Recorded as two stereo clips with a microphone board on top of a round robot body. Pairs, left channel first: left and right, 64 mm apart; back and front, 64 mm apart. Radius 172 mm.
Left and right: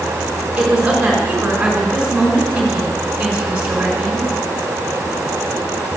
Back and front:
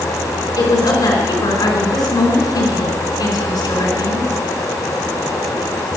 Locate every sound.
0.6 s a woman speaking: 165° right, 5 m